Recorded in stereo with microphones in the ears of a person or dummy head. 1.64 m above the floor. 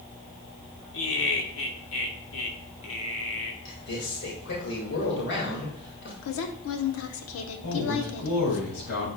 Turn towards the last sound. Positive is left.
turn(degrees=75)  # may be behind; listen again after turning